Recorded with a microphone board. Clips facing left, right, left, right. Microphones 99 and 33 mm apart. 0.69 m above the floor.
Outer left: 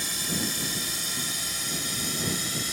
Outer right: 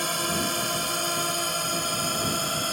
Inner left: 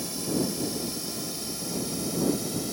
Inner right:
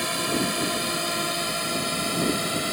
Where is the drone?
65° right (ahead or behind); by 2.7 s 60° right (ahead or behind).